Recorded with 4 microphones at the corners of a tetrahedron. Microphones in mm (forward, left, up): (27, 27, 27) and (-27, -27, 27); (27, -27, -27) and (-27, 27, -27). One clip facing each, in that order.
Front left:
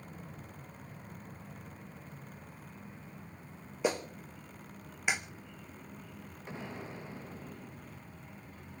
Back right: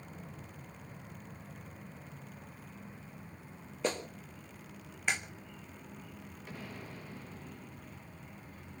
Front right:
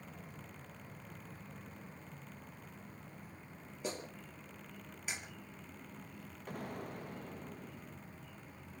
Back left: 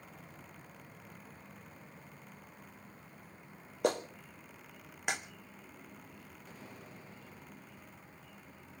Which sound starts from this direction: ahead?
An explosion, at 6.5 s.